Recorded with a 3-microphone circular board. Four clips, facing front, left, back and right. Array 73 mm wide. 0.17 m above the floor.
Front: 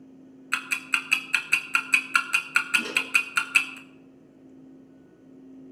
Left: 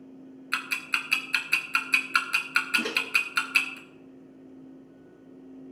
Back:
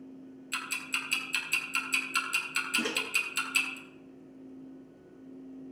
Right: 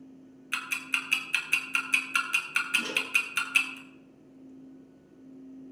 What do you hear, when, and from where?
0.5 s ticking: 25° left, 1.3 m
2.8 s a microwave: 125° left, 2.5 m